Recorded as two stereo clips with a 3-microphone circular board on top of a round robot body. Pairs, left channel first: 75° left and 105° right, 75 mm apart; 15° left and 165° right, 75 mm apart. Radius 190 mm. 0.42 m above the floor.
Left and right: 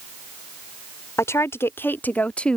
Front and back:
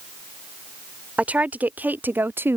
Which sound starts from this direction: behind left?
A woman speaking, at 1.2 s.